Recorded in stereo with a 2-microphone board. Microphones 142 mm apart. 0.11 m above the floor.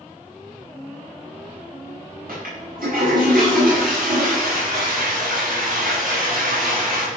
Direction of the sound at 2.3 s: 85° right.